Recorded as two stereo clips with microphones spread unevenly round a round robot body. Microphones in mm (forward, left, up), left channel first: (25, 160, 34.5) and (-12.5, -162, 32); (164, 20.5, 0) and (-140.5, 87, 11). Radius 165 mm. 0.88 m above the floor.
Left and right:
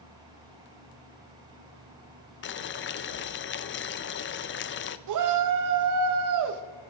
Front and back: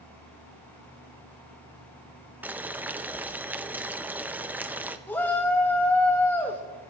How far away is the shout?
About 0.9 m.